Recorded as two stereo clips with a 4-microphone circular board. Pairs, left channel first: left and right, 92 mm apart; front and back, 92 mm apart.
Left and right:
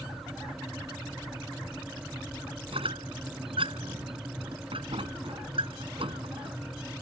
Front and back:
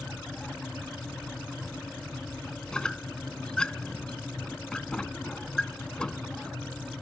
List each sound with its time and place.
2.7 s a squeak: 80° right